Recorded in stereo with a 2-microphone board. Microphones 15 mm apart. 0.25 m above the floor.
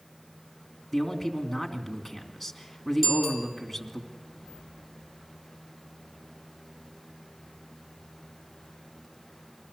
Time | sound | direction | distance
0.9 | a man speaking | 5° left (ahead or behind) | 2.5 m
3.0 | a bicycle bell | 5° right (ahead or behind) | 5.5 m